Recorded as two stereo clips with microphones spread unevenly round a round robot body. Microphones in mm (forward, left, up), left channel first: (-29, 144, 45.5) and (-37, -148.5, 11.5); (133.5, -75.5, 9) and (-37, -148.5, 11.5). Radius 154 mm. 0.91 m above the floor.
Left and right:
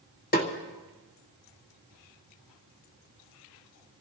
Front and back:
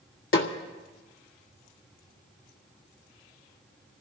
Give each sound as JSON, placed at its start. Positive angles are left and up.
{"t": 0.3, "sound": "a snare drum", "azimuth_deg": 25, "distance_m": 1.6}